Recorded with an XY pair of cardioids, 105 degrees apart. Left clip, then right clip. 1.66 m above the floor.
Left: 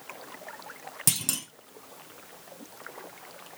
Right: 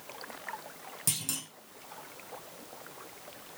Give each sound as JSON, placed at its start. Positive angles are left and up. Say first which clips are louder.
{"t": 1.1, "sound": "a clunk", "louder": "left 5 dB", "azimuth_deg": 50, "distance_m": 1.1}